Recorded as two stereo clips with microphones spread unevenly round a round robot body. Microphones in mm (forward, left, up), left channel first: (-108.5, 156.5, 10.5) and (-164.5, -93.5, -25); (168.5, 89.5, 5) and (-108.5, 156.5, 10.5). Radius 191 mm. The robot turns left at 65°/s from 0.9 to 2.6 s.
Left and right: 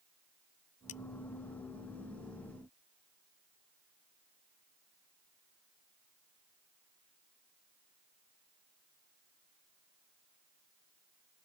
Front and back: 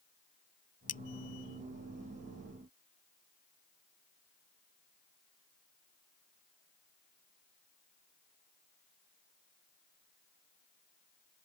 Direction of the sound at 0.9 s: 20° left.